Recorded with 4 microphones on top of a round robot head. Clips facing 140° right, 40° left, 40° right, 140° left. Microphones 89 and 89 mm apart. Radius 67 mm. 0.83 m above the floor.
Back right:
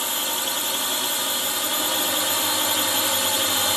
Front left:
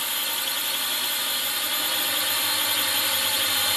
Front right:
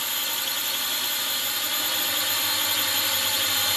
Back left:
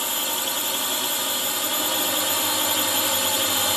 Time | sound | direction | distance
0.0 | a drone | 175° left | ?